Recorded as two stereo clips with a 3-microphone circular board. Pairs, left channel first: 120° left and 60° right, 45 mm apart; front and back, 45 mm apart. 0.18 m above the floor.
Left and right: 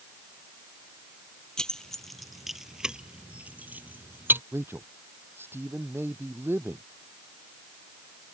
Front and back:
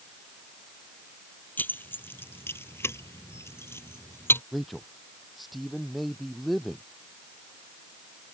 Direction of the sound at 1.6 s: 45° left.